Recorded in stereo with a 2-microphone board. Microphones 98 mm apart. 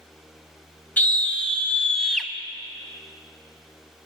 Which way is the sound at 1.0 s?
20° left (ahead or behind).